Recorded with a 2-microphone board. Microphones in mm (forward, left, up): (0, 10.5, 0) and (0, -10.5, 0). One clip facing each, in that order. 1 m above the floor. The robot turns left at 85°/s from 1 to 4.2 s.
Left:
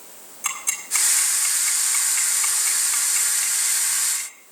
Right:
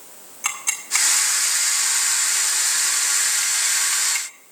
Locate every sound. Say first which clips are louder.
0.4 s ticking: right 2 dB; 30° right (ahead or behind), 2 m; by 4.3 s 65° right (ahead or behind), 2 m